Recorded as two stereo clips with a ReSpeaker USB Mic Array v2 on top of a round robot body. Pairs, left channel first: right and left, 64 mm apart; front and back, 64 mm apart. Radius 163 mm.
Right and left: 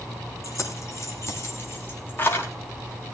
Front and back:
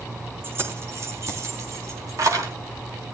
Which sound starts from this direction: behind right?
Keys jangling, at 0.4 s.